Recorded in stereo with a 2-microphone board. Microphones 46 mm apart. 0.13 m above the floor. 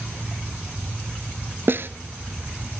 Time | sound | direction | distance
1.7 | a snare drum | 50° right (ahead or behind) | 0.7 m